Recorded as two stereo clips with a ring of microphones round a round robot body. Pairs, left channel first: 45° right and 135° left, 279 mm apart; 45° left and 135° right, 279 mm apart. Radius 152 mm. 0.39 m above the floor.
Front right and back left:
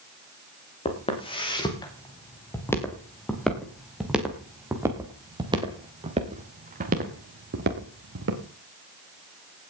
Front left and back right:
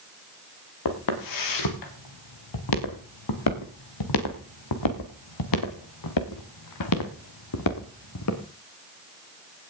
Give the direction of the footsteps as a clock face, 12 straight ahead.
11 o'clock.